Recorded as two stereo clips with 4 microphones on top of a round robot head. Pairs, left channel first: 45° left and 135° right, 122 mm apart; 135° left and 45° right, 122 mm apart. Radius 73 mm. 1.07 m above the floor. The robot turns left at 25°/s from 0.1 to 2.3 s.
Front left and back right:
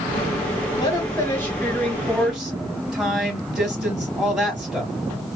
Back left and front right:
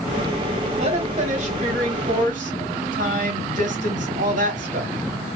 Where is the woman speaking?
5° right, 2 m; by 4.9 s 45° right, 2 m.